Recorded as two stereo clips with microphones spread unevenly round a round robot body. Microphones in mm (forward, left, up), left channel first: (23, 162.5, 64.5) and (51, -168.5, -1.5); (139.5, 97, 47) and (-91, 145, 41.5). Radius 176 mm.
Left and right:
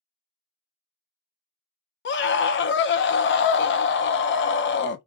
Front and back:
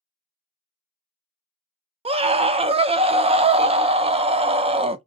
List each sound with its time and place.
2.0 s a scream: 140° left, 0.5 m